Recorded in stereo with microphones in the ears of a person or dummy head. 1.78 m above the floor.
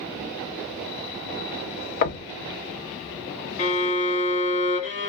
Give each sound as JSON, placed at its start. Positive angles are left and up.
{"t": 2.0, "sound": "knocking", "side_deg": 45, "distance_m": 0.6}
{"t": 3.6, "sound": "a violin", "side_deg": 40, "distance_m": 1.0}